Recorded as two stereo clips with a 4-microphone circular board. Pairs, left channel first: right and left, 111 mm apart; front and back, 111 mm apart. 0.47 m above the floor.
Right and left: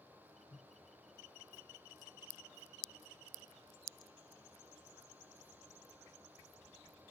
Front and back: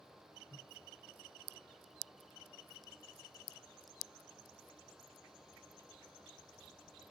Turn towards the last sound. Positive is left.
turn(degrees=-40)